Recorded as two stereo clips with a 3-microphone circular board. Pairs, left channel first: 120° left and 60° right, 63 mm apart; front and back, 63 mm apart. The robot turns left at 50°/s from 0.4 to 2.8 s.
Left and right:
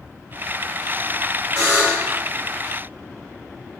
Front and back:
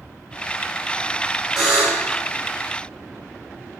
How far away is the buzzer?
About 1.3 m.